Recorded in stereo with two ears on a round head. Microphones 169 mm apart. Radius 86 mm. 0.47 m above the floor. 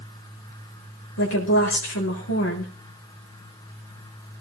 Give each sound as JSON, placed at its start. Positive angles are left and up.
{"t": 1.2, "sound": "a woman speaking", "side_deg": 85, "distance_m": 6.5}